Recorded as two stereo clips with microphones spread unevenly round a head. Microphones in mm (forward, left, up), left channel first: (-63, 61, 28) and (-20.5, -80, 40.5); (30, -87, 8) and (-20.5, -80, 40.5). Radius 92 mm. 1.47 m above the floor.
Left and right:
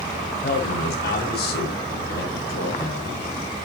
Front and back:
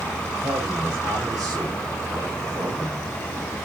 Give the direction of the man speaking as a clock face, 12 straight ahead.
8 o'clock.